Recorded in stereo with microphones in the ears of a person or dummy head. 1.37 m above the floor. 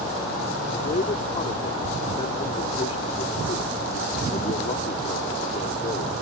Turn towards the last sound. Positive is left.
turn(degrees=25)  # may be behind; listen again after turning